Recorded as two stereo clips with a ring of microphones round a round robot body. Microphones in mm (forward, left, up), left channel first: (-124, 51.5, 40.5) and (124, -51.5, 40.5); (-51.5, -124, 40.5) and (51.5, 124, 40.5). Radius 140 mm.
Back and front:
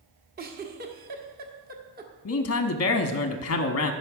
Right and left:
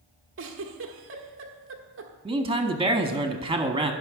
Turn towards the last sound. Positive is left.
turn(degrees=140)